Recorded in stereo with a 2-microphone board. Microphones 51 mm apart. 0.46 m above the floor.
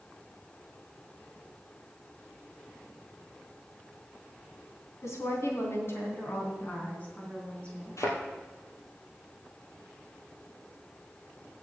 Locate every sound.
5.0 s a woman speaking: 70° left (ahead or behind), 3 m; by 8.0 s 20° left (ahead or behind), 4.5 m
8.0 s a thud: 85° left, 2.5 m